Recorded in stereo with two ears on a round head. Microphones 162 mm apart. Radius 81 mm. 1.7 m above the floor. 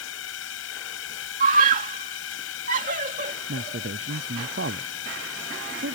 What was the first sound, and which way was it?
A drone, 80° left.